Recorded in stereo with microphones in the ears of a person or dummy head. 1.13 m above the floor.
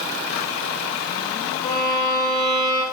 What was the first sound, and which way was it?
A violin, 30° left (ahead or behind).